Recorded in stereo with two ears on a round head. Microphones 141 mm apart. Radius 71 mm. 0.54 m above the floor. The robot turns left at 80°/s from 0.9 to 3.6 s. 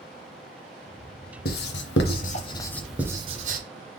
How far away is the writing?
About 0.8 m.